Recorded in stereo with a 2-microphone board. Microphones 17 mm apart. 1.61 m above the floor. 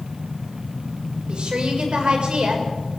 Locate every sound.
1.3 s a woman speaking: 85° right, 6 m